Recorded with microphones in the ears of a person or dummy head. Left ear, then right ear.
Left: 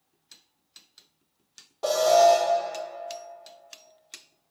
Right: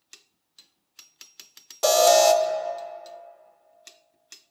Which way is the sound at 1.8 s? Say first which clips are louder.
Right 2 dB; 70° right (ahead or behind).